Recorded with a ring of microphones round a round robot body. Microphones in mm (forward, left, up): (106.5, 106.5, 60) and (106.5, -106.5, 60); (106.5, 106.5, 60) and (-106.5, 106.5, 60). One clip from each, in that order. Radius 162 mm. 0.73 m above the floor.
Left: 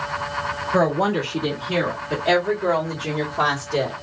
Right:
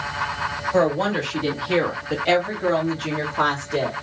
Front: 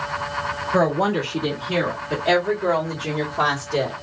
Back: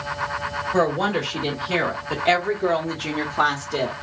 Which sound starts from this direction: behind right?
A woman speaking, at 0.7 s.